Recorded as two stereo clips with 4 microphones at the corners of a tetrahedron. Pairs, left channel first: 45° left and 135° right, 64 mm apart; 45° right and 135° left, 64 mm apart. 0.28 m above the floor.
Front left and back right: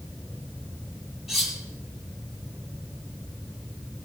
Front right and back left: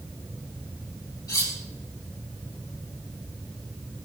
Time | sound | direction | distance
1.3 | cutlery clinking | 50° right | 6 m